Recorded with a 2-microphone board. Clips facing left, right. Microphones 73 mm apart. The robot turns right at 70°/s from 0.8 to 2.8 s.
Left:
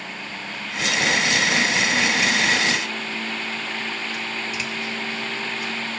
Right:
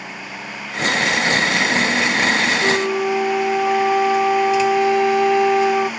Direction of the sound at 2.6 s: 55° right (ahead or behind).